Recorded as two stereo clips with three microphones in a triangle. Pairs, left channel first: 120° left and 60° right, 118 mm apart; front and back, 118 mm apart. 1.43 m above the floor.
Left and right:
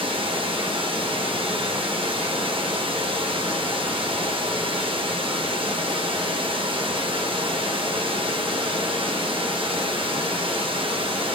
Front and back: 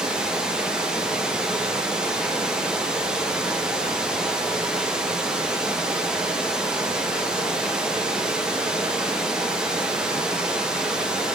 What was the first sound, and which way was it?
Running water, 95° right.